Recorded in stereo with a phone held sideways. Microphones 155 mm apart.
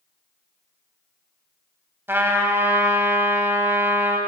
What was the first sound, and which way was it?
A trumpet, 15° right (ahead or behind).